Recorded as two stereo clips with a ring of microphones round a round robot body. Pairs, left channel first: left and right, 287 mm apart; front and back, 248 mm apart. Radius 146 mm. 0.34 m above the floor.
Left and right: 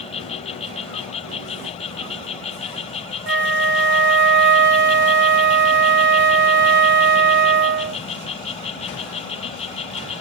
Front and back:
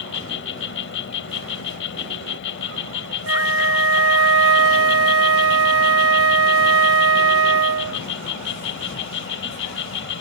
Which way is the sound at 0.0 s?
25° left.